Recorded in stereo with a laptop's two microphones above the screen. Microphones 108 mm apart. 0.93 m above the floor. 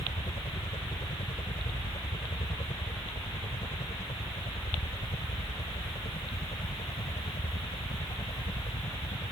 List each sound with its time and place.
0.0 s a helicopter: 65° left (ahead or behind); by 9.3 s 75° left (ahead or behind)